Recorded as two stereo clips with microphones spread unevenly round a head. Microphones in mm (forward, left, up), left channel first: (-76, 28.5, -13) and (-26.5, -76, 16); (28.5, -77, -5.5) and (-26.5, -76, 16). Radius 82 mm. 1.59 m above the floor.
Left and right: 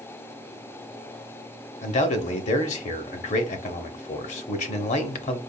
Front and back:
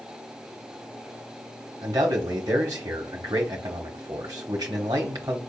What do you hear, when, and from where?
1.8 s a man speaking: 115° left, 0.8 m